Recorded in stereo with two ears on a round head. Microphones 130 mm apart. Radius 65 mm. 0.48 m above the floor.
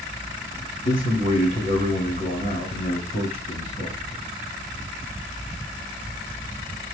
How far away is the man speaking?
About 3 m.